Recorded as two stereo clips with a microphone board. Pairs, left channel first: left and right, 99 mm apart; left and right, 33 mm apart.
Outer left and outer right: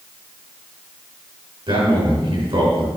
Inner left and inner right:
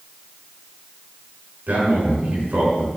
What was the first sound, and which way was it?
A man speaking, 60° right (ahead or behind).